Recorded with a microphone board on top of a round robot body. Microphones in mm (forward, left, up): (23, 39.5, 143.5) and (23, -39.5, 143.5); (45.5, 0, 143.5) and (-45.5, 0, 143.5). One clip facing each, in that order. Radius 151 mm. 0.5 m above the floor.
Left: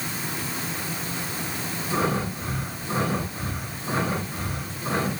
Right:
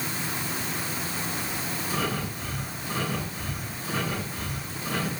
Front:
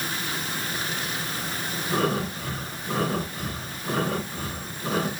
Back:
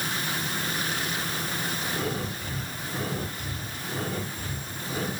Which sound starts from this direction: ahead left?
Breathing, at 1.9 s.